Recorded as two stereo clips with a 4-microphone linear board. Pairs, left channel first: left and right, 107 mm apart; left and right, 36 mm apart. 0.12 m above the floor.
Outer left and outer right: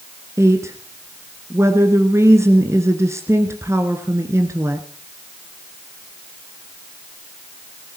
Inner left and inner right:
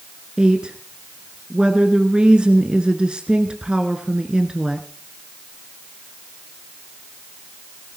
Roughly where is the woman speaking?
Right.